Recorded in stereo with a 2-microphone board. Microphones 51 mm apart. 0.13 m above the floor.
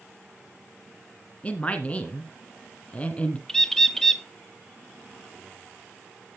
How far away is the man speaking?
About 1.7 m.